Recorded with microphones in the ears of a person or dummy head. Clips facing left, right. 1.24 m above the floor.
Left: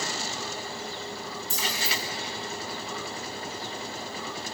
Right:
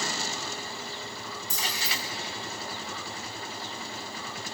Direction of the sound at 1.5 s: 15° right (ahead or behind).